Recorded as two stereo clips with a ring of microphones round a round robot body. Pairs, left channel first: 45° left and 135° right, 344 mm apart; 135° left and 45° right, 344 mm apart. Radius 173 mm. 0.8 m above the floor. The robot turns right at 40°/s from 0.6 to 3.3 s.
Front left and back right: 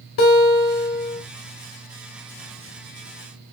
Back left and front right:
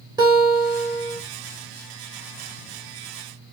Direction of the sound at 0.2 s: 30° left.